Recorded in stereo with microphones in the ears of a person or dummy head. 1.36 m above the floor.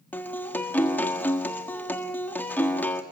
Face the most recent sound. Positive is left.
turn(degrees=15)  # may be behind; listen again after turning